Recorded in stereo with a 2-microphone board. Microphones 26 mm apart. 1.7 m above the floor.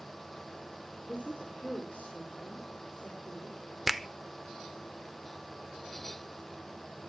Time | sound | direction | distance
1.1 | a woman speaking | 65° left (ahead or behind) | 5 m
3.9 | a finger snap | 5° right (ahead or behind) | 0.5 m